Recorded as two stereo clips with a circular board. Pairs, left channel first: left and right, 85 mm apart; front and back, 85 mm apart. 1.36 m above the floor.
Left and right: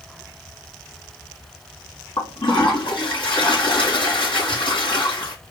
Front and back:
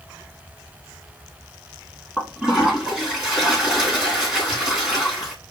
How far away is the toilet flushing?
About 3 m.